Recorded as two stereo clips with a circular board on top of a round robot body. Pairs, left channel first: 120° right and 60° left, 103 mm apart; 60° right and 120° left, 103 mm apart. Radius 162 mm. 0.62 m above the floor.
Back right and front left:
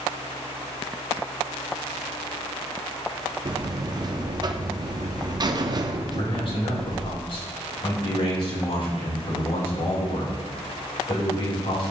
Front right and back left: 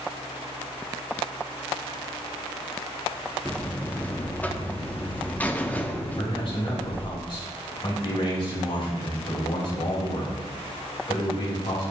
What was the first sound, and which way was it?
A buzzer, 15° left.